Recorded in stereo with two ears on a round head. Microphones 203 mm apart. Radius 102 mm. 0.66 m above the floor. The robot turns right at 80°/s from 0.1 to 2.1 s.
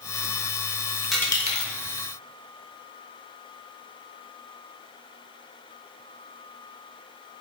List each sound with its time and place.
1.1 s a dropped coin: centre (ahead or behind), 0.6 m; by 1.7 s 45° left (ahead or behind), 0.6 m